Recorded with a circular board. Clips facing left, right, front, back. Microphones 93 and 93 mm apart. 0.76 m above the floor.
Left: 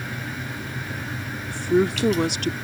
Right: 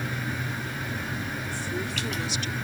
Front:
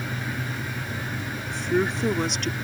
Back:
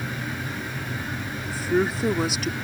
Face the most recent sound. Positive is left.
turn(degrees=95)